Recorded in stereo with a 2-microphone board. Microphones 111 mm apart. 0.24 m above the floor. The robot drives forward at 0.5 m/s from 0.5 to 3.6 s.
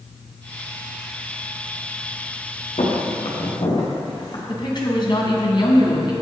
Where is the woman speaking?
50° left (ahead or behind), 1.9 m.